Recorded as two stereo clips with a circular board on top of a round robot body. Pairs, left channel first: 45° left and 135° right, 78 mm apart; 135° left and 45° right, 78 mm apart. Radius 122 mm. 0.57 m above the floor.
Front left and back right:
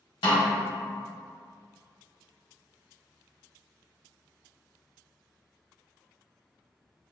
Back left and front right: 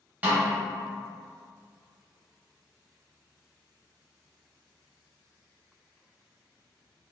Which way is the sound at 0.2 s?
25° left.